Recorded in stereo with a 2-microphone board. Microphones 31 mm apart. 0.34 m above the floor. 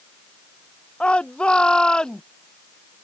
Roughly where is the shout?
Left.